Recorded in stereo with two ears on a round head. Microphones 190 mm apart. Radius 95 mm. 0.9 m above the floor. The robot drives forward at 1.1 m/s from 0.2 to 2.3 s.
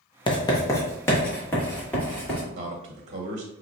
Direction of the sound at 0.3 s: 25° left (ahead or behind).